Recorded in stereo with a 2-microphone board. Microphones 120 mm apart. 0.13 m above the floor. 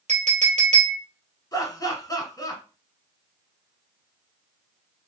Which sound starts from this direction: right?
A clink, at 0.1 s.